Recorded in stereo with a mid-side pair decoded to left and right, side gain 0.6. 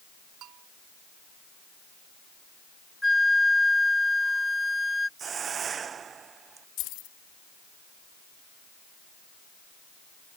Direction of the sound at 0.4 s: 60° right.